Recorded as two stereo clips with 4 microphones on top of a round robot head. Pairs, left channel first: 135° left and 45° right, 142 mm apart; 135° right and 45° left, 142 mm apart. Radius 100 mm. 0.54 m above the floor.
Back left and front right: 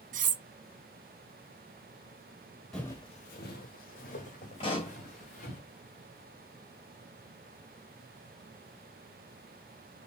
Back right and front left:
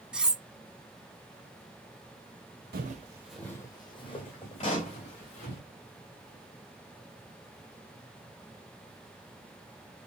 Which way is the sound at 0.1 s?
40° right.